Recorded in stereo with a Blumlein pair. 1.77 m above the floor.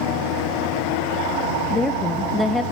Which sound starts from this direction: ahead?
A woman speaking, at 1.7 s.